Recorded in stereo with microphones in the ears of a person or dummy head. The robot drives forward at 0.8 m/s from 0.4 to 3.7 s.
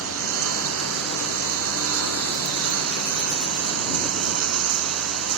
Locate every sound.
0.0 s a lawn mower: 80° right; by 5.4 s 85° right